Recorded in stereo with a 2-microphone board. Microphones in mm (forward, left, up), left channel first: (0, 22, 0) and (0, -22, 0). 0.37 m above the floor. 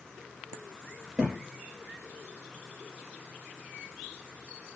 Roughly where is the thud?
Right.